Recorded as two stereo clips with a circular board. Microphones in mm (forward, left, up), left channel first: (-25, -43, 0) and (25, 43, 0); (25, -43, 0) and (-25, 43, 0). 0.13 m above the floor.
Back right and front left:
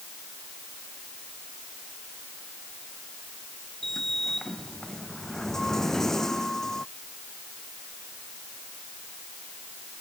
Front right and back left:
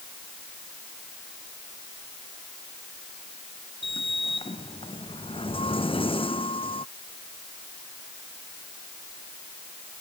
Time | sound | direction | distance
3.8 | a sliding door | 35° right | ?